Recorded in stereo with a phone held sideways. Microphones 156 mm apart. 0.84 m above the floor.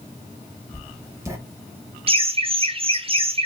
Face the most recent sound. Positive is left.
turn(degrees=-35)  # may be behind; listen again after turning